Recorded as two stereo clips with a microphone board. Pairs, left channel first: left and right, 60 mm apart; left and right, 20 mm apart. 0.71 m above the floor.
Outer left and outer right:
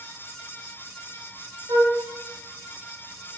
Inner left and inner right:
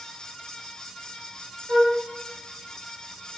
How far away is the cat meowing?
I don't hear a cat meowing.